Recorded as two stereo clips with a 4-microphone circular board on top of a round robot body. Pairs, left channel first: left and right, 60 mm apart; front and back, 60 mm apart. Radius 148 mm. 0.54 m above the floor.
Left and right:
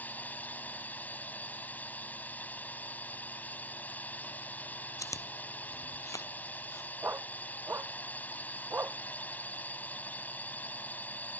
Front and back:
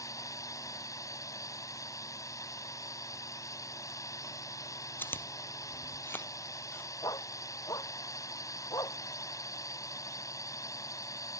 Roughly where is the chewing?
Ahead left.